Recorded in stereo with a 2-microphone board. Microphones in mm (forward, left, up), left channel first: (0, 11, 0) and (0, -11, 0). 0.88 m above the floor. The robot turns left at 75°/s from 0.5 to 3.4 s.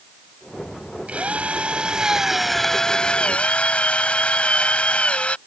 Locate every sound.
1.1 s a drill: 75° right; by 5.4 s 110° left